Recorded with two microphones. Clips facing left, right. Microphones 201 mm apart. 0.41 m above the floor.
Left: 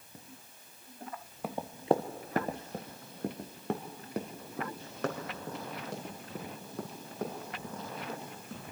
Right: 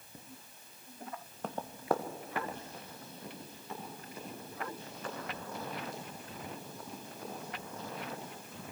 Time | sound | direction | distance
1.4 | running footsteps | 10° left (ahead or behind) | 1.4 m